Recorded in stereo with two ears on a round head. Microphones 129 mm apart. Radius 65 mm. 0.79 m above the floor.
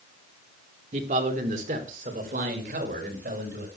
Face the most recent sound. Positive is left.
turn(degrees=-65)  # may be behind; listen again after turning